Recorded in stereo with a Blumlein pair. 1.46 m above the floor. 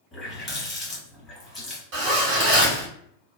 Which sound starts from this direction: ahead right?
A zipper, at 1.9 s.